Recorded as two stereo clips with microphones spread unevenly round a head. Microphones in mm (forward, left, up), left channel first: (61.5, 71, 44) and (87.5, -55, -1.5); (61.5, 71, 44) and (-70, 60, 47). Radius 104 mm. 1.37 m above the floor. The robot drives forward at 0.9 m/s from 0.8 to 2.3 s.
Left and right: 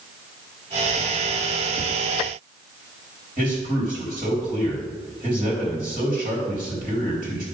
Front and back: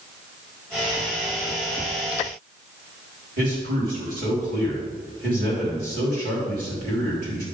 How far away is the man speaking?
About 3 m.